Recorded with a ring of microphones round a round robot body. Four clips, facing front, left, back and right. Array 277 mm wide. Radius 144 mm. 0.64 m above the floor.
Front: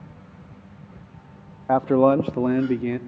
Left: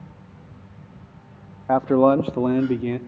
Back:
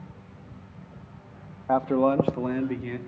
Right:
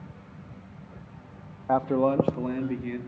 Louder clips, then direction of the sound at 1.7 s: Left 7 dB, front 5 dB; 45° left.